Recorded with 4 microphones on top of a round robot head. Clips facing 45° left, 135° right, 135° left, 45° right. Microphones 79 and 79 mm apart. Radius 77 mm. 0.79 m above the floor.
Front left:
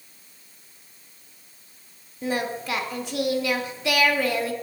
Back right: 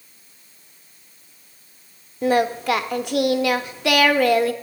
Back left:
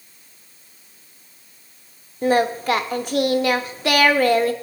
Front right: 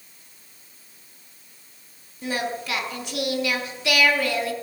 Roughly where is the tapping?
I don't hear tapping.